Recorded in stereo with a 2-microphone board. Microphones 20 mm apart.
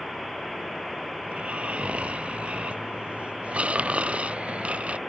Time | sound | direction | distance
1.2 | snoring | 85° right | ?